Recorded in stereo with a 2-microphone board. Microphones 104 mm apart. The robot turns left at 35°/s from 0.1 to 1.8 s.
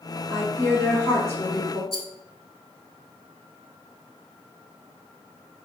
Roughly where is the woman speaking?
Right.